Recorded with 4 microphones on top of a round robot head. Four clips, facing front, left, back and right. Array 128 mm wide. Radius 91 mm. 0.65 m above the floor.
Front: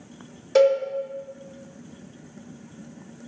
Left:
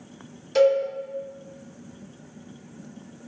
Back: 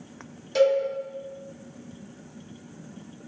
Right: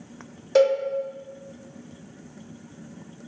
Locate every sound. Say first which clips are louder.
0.6 s a cowbell: even, front 3 dB; 50° right, 1.1 m